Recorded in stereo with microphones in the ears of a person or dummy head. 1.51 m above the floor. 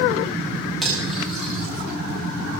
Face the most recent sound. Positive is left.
turn(degrees=0)  # may be behind; listen again after turning